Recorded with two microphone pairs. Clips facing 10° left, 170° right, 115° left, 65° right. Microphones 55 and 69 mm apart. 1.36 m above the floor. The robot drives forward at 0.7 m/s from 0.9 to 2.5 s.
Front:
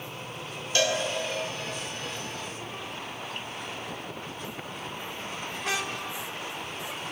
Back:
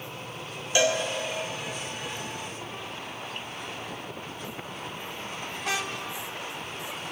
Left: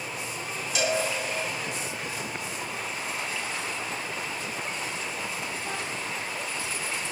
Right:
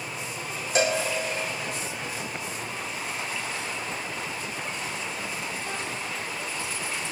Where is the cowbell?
105° right, 1.3 m.